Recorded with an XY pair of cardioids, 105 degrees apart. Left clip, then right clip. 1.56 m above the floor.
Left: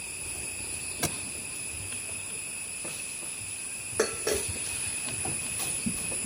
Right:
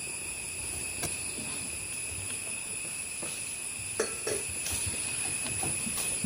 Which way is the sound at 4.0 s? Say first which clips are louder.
Left 5 dB; 30° left.